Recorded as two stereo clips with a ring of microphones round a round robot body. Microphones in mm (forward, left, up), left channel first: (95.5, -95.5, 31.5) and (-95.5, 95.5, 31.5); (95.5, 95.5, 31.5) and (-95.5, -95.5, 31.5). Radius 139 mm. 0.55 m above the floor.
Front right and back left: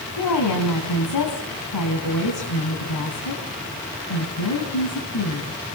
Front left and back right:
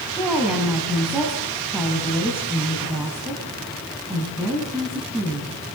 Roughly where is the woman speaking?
Ahead right.